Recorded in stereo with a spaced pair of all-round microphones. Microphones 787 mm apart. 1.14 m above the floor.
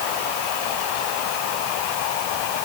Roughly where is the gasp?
I don't hear a gasp.